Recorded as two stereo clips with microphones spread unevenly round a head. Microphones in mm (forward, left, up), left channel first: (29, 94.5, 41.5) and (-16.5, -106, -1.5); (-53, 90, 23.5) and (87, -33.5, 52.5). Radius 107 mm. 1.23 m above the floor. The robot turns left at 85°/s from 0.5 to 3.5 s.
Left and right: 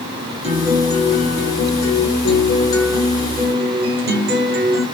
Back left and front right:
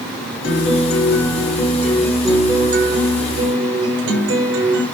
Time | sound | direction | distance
0.4 | a guitar | 165° right | 9 m